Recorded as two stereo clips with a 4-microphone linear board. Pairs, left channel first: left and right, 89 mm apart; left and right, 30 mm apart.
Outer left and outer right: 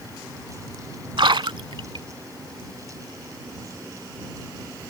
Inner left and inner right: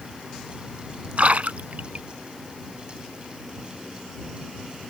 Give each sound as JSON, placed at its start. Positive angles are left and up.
{"t": 1.2, "sound": "a splash", "side_deg": -65}